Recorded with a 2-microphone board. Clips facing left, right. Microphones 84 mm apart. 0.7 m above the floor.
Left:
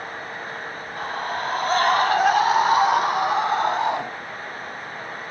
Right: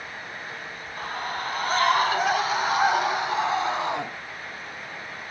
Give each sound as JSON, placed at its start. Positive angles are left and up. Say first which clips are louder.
{"t": 1.0, "sound": "a scream", "louder": "left 4 dB", "side_deg": 80, "distance_m": 4.5}